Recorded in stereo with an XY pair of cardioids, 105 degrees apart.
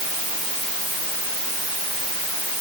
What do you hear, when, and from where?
Only background noise.